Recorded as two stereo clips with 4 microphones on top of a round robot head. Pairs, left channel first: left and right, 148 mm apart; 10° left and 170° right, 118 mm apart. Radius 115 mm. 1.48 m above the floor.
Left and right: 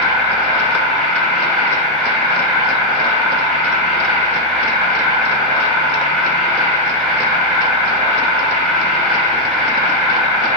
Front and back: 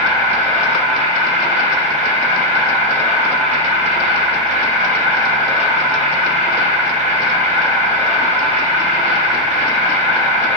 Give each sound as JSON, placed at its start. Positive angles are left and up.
{"t": 0.0, "sound": "an insect", "azimuth_deg": 180, "distance_m": 2.5}